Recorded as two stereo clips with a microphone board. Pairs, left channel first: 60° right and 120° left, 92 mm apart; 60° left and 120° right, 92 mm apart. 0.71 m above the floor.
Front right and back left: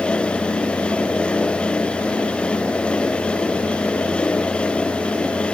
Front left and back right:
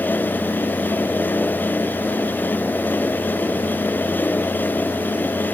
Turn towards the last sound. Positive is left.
No sound to turn to.